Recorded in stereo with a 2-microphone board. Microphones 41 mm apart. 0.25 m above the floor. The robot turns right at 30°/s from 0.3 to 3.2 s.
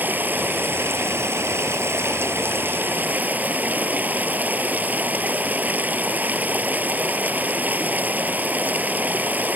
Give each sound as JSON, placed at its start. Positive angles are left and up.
{"t": 0.0, "sound": "running water", "azimuth_deg": -130}